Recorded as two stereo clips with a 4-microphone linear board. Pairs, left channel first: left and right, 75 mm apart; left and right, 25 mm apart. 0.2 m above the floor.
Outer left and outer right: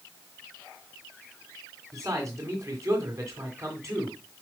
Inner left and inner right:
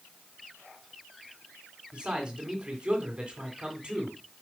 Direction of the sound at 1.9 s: 40° right (ahead or behind).